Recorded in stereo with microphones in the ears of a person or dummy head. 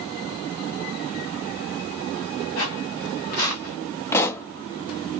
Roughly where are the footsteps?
Left.